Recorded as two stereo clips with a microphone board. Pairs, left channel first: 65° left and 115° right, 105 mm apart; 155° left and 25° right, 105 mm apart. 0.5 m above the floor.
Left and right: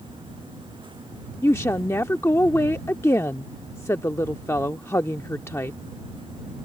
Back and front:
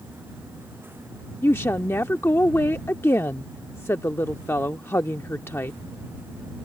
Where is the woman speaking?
110° left.